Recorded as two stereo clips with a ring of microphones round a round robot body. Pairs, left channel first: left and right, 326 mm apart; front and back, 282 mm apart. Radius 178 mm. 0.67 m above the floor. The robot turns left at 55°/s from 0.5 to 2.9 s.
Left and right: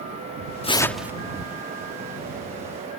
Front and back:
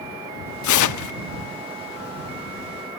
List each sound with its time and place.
0.6 s tearing paper: 20° left; by 1.1 s 10° right